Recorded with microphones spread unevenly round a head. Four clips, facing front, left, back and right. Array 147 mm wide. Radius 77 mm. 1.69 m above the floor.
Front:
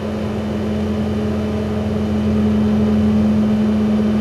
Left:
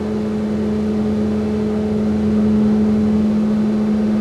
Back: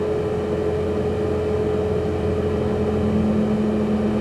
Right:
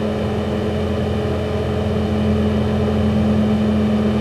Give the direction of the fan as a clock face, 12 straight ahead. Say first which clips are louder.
Left 1 dB, back 1 dB; 2 o'clock.